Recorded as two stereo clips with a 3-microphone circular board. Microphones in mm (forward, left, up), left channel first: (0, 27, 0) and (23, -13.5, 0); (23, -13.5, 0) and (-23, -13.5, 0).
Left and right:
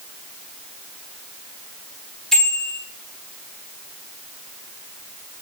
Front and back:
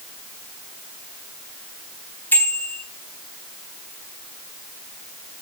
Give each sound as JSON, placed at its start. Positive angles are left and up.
{"t": 2.3, "sound": "a bicycle bell", "azimuth_deg": 40, "distance_m": 5.0}